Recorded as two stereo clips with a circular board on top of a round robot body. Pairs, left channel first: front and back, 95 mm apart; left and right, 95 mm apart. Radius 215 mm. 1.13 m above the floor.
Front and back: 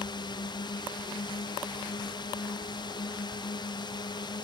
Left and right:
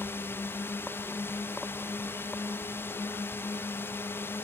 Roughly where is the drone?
Ahead left.